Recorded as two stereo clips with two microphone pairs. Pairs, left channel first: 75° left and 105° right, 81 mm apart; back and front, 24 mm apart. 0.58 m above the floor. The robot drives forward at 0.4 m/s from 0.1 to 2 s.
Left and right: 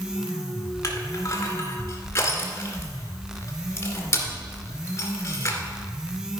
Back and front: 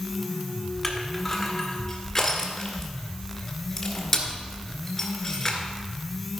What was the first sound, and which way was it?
Crushing, 110° left.